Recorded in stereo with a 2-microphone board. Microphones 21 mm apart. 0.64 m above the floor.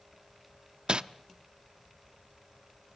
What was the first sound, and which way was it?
Crumpling, 55° right (ahead or behind).